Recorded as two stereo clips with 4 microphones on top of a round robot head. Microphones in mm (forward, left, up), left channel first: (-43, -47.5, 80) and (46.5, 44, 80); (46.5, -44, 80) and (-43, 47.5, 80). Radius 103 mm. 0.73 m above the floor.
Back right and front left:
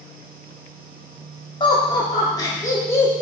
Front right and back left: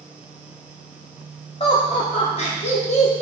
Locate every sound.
1.6 s laughter: 85° right, 2.5 m; by 3.2 s 65° right, 2 m